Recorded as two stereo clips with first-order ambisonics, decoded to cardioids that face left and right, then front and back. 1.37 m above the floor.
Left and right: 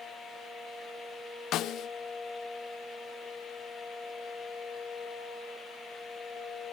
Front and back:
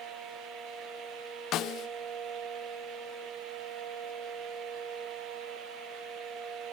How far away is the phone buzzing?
I don't hear a phone buzzing.